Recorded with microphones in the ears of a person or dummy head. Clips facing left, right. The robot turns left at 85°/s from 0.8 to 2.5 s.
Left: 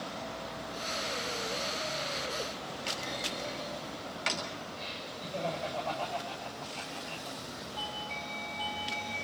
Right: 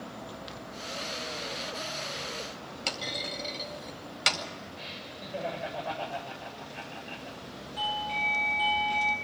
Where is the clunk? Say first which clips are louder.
Right 3 dB; 65° right (ahead or behind), 4.5 m.